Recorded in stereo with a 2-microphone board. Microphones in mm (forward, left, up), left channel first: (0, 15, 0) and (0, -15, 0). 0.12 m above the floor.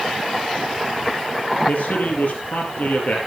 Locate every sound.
1.6 s a man speaking: 60° left (ahead or behind), 3 m